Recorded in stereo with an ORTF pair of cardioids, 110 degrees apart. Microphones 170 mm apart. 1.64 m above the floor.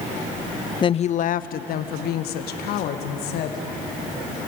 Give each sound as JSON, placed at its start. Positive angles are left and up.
{"t": 0.8, "sound": "a woman speaking", "azimuth_deg": 30, "distance_m": 0.5}